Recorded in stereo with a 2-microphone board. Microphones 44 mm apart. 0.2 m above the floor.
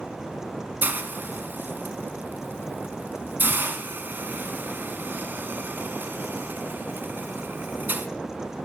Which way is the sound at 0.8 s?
45° right (ahead or behind).